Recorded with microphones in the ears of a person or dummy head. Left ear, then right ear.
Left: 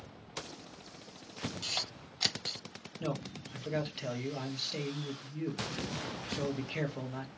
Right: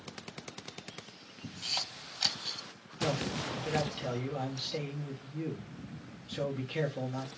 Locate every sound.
1.6 s a camera shutter: 10° left (ahead or behind), 0.7 m
3.0 s a man speaking: 15° left (ahead or behind), 1.8 m